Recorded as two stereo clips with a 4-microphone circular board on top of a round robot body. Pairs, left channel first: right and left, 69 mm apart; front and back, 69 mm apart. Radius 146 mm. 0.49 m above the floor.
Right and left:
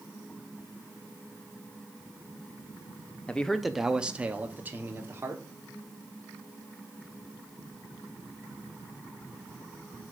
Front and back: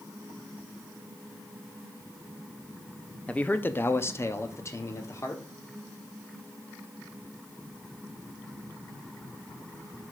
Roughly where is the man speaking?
Ahead right.